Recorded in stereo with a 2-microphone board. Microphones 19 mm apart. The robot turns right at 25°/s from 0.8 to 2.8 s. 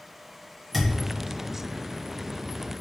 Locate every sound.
0.7 s a thud: centre (ahead or behind), 1.8 m; by 0.9 s 5° left (ahead or behind), 1.8 m